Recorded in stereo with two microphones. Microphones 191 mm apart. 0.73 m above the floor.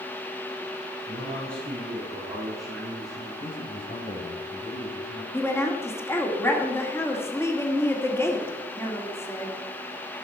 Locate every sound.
1.1 s a man speaking: 10° right (ahead or behind), 7 m; by 3.3 s 20° right (ahead or behind), 8.5 m
3.4 s a man speaking: 45° left (ahead or behind), 3.5 m
5.3 s a woman speaking: 15° left (ahead or behind), 2 m